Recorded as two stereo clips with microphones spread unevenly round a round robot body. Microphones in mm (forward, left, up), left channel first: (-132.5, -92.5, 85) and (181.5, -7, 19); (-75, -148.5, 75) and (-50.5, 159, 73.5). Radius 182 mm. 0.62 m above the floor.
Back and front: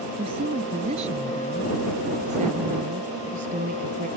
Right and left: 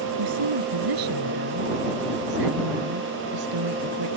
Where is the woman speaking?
90° left; by 4.1 s 85° left.